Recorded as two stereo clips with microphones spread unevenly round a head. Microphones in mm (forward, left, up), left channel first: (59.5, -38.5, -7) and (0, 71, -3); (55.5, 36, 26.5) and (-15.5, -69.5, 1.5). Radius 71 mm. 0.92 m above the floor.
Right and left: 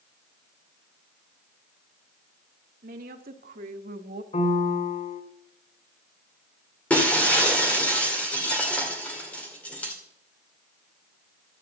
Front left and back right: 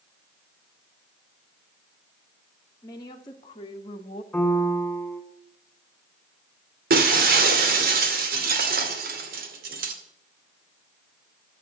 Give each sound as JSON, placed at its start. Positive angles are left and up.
{"t": 2.8, "sound": "a woman speaking", "azimuth_deg": 120, "distance_m": 2.0}
{"t": 4.3, "sound": "a piano", "azimuth_deg": -30, "distance_m": 3.0}
{"t": 6.9, "sound": "breaking glass", "azimuth_deg": -145, "distance_m": 2.0}